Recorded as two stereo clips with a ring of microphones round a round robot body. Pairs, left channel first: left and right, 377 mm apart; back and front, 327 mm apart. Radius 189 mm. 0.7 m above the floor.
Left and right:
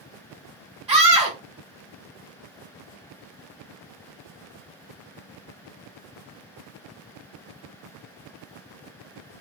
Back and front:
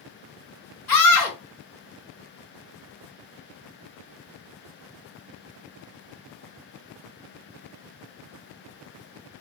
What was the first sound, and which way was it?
A scream, 160° right.